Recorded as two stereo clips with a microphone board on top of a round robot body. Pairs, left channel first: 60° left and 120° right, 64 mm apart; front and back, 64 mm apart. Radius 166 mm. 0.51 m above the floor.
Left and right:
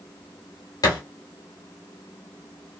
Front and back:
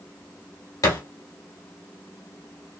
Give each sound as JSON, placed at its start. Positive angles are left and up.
{"t": 0.8, "sound": "a thud", "azimuth_deg": 40, "distance_m": 1.0}